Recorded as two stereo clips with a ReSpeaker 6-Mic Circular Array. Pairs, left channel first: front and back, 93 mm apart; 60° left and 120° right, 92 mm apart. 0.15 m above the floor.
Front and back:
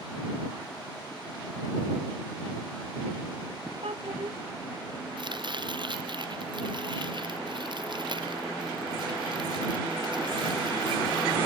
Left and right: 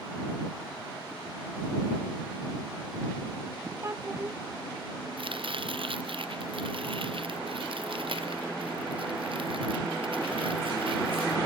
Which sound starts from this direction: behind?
A child speaking, at 3.8 s.